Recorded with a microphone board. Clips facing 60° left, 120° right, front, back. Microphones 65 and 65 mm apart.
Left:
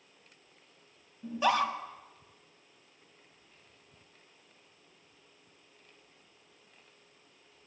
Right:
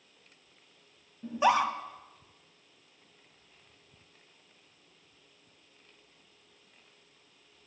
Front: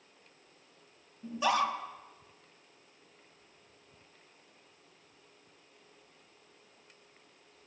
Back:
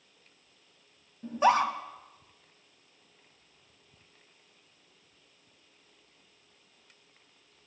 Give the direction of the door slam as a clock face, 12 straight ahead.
No door slam in this recording.